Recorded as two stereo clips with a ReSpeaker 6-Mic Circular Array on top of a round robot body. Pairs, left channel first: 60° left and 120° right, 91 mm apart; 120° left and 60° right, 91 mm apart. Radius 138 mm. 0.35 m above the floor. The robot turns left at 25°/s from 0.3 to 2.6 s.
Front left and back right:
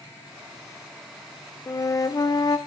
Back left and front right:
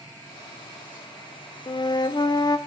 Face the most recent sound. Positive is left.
turn(degrees=85)